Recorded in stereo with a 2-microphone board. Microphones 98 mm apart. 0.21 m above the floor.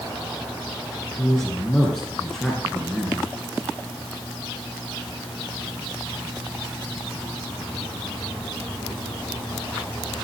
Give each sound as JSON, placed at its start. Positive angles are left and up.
{"t": 1.2, "sound": "a man speaking", "side_deg": 5, "distance_m": 3.0}